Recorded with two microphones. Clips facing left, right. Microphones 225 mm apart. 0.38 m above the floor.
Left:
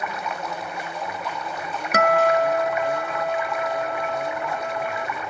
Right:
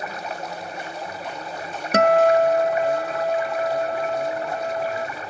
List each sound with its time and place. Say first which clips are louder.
0.0 s running water: left 1 dB; 35° right (ahead or behind)
1.9 s a guitar: right 3 dB; 30° right (ahead or behind)